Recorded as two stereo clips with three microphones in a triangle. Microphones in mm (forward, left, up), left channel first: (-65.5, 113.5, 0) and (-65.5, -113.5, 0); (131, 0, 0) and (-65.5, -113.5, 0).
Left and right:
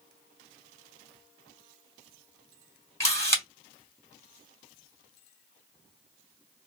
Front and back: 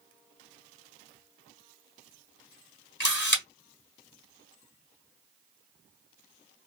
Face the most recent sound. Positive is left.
turn(degrees=15)